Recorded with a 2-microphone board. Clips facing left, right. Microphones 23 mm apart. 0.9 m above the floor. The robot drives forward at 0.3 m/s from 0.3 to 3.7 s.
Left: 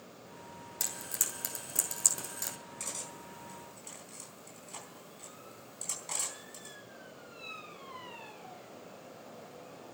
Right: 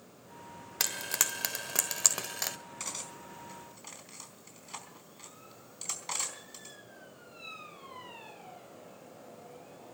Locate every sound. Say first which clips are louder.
0.8 s frying: right 6 dB; 65° right (ahead or behind), 1.2 m; by 2.6 s 45° right (ahead or behind), 1.5 m
2.8 s cutlery clinking: right 1 dB; 30° right (ahead or behind), 4.5 m